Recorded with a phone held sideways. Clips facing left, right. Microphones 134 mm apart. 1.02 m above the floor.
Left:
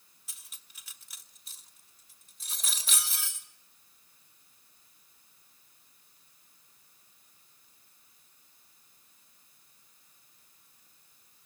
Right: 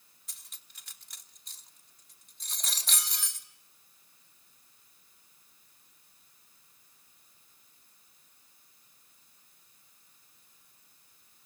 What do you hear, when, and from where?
0.3 s cutlery clinking: 5° left (ahead or behind), 2.5 m